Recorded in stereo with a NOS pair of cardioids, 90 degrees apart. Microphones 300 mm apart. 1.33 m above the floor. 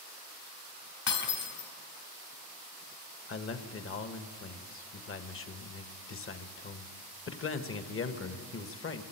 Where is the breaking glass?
55° left, 3.5 m.